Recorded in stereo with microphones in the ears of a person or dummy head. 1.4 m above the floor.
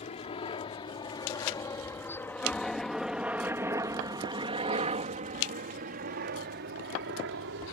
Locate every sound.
0.0 s a helicopter: 35° left (ahead or behind); by 7.7 s 65° right (ahead or behind)